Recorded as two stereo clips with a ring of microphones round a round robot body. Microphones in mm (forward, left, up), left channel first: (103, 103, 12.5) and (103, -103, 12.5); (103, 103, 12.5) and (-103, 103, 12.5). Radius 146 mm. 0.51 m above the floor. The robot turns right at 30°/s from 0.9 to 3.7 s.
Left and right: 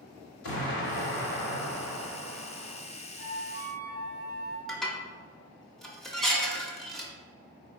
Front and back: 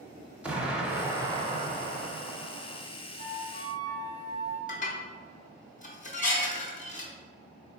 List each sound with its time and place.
0.4 s an explosion: 95° left, 0.7 m; by 2.8 s 155° left, 0.7 m
3.2 s a flute: straight behind, 1.1 m; by 4.6 s 160° right, 1.1 m
4.7 s dishes clattering: straight ahead, 0.6 m